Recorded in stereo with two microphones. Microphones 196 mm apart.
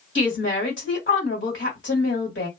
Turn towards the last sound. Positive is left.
turn(degrees=65)  # may be behind; listen again after turning